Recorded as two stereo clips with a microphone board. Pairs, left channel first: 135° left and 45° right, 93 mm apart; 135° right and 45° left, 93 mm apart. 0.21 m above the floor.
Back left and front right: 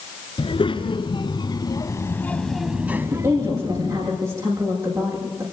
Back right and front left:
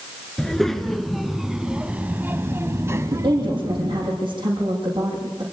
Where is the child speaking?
140° left, 2.5 m; by 4.1 s 15° right, 2.5 m.